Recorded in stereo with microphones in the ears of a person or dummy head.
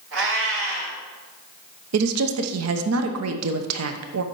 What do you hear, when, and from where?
0.1 s a cat meowing: 65° right (ahead or behind), 2.5 m
1.9 s a woman speaking: 85° right, 0.9 m